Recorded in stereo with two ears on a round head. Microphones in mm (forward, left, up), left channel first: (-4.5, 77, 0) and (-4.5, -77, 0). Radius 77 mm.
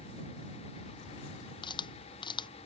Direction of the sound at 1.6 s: 25° left (ahead or behind).